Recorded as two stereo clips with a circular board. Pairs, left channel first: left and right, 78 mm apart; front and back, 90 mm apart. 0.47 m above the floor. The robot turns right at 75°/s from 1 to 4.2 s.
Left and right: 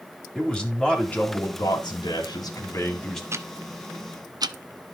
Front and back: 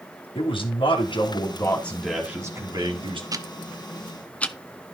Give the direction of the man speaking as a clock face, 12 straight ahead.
12 o'clock.